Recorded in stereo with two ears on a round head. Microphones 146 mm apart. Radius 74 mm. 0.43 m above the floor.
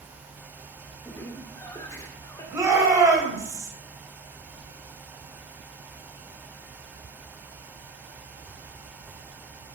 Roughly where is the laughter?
Left.